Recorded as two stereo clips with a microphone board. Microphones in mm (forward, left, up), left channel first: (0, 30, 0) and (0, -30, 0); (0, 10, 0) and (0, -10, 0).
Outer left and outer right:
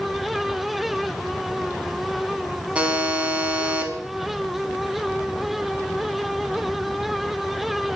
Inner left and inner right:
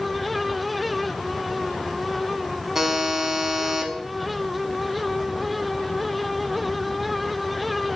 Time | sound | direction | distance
2.8 | a buzzer | 20° right (ahead or behind) | 1.4 m